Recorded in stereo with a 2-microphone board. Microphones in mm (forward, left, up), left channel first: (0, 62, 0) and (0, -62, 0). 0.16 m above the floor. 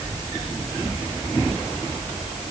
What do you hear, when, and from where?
Only background noise.